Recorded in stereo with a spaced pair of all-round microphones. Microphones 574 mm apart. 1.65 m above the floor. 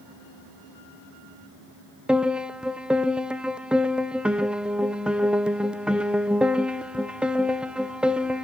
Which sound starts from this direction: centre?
A piano, at 2.1 s.